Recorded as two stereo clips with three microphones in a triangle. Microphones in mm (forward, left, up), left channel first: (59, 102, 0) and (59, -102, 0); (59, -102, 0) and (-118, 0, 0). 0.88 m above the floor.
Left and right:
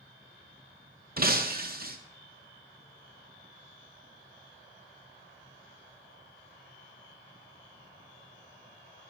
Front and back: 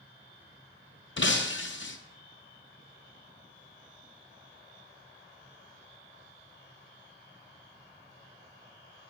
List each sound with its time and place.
1.2 s breaking glass: 45° right, 0.5 m